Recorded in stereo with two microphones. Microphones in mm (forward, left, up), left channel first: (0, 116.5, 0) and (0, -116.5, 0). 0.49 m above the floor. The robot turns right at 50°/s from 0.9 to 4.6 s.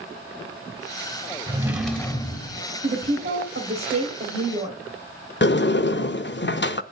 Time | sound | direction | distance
1.5 | a drawer | 20° right | 1.1 m
2.8 | a woman speaking | 130° right | 2.5 m
5.4 | a sliding door | 50° left (ahead or behind) | 0.6 m